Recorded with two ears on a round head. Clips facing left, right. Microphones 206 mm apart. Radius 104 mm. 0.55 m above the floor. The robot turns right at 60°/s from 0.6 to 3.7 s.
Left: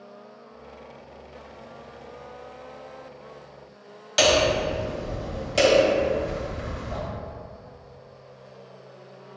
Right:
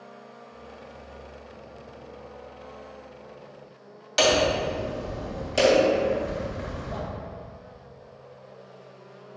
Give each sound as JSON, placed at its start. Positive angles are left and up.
{"t": 4.2, "sound": "hammering", "side_deg": -5, "distance_m": 1.9}